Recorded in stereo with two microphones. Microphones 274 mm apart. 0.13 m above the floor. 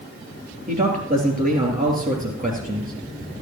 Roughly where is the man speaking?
Right.